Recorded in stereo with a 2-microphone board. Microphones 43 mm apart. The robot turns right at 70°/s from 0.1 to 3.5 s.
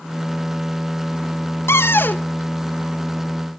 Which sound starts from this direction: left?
A cupboard door, at 1.7 s.